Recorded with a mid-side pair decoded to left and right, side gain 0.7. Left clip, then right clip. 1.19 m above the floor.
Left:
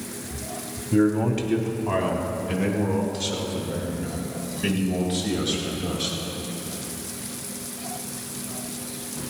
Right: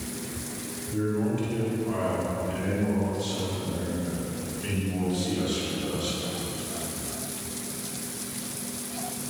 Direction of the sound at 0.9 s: 50° left.